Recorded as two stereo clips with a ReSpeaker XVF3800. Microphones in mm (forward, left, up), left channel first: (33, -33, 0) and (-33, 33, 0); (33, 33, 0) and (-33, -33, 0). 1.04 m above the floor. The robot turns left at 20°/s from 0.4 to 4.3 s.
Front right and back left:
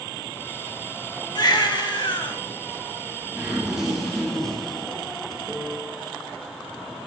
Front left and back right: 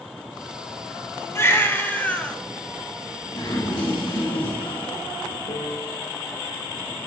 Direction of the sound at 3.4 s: 55° left.